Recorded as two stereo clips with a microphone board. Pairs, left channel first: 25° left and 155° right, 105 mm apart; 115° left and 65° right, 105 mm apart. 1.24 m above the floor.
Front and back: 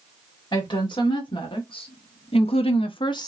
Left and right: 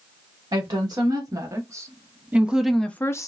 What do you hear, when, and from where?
0.5 s a woman speaking: 20° right, 1.4 m; by 3.3 s 65° left, 0.5 m